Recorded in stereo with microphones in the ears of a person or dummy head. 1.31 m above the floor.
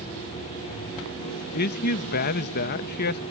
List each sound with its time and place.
1.5 s a man speaking: 50° left (ahead or behind)